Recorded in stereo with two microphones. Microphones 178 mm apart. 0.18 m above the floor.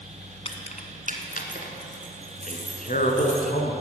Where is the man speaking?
50° left (ahead or behind), 2 m.